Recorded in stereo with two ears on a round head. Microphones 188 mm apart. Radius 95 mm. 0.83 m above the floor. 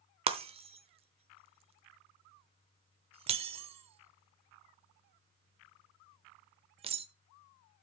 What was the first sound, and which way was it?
Breaking glass, 30° right (ahead or behind).